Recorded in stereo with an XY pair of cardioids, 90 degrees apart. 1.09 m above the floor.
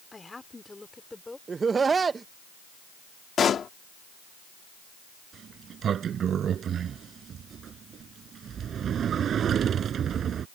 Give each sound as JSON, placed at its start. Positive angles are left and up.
{"t": 0.1, "sound": "a woman speaking", "azimuth_deg": 25}
{"t": 1.5, "sound": "laughter", "azimuth_deg": -40}
{"t": 3.4, "sound": "a pop", "azimuth_deg": 60}
{"t": 5.3, "sound": "a sliding door", "azimuth_deg": -65}